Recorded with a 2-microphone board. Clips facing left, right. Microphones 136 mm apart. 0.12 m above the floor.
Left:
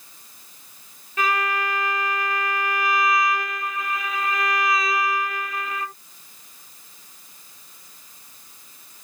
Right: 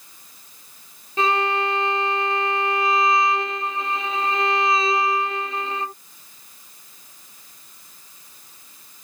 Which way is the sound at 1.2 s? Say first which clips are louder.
Right 3 dB; 25° right (ahead or behind).